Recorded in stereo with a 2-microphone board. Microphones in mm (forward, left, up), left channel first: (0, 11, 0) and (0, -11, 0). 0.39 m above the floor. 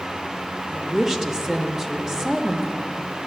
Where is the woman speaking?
20° right (ahead or behind), 0.9 m.